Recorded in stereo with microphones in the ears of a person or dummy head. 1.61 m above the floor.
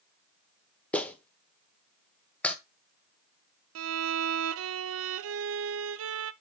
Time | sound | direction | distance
0.9 | a clap | 5° left (ahead or behind) | 0.9 m
3.8 | a violin | 80° right | 0.5 m